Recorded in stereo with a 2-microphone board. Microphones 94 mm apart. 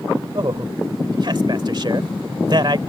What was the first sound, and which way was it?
A man speaking, 50° right (ahead or behind).